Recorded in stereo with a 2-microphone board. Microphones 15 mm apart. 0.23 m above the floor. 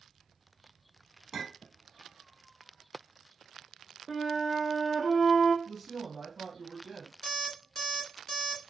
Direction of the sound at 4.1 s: 5° left (ahead or behind).